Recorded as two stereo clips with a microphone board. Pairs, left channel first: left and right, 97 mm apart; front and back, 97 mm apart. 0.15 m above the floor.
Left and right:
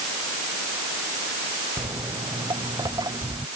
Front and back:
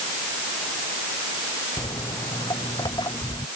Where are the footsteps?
45° right; by 3.5 s 40° right.